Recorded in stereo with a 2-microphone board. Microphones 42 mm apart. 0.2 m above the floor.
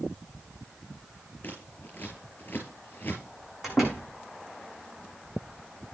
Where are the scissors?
45° left (ahead or behind), 5 m.